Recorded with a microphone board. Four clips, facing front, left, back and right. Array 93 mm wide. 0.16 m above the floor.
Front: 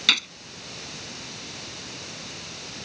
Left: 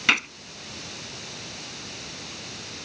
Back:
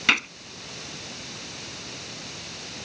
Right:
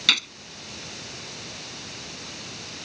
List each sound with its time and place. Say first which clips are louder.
0.1 s a gunshot: left 5 dB, back 5 dB; 130° left